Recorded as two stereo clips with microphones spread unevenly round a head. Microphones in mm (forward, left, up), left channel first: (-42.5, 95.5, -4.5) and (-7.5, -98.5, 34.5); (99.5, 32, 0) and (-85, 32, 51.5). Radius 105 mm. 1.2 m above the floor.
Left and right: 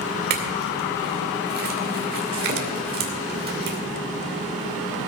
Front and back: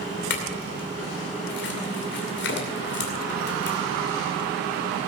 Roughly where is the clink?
Ahead right.